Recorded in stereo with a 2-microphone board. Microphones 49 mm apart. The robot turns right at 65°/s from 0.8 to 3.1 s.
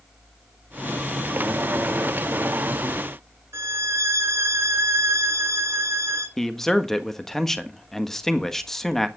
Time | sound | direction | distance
3.5 | a violin | 75° right (ahead or behind) | 2 m
6.4 | a man speaking | 5° left (ahead or behind) | 1.5 m